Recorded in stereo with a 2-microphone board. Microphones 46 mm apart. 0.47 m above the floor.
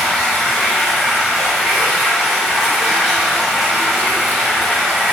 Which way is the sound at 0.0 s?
Centre (ahead or behind).